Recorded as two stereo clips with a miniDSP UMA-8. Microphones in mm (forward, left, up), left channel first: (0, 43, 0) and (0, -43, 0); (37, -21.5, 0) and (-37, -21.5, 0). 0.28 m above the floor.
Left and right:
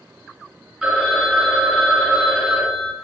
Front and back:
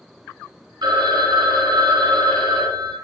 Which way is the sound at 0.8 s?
170° right.